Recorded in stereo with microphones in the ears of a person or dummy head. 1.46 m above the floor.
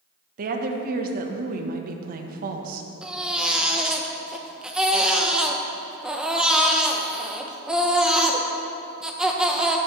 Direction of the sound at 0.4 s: 55° right (ahead or behind).